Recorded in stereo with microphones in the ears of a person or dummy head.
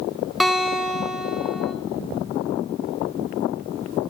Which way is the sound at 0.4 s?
10° right (ahead or behind).